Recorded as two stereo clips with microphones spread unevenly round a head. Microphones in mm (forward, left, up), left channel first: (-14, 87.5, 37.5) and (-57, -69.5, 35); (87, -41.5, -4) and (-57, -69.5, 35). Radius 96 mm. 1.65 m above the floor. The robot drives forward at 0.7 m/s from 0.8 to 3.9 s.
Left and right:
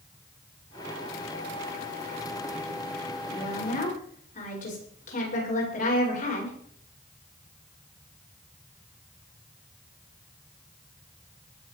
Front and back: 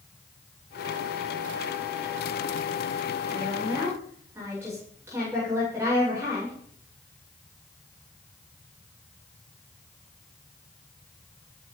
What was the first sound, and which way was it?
A woman speaking, 110° left.